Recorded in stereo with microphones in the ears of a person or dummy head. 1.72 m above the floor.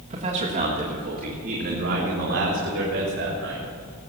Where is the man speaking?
40° right (ahead or behind), 1.9 m; by 3.7 s 75° right (ahead or behind), 3.5 m.